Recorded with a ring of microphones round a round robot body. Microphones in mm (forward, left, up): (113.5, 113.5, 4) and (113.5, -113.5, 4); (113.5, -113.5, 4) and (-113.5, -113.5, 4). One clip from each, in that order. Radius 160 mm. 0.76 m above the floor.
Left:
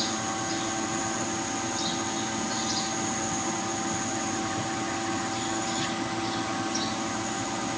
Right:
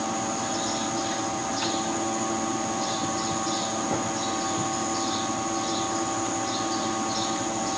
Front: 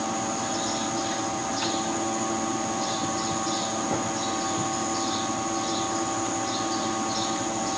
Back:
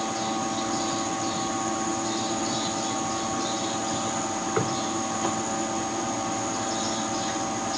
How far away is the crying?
No crying in this recording.